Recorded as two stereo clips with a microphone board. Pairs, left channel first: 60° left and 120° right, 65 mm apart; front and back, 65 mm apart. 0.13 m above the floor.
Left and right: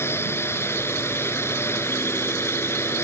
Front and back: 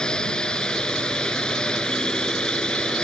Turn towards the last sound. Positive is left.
turn(degrees=70)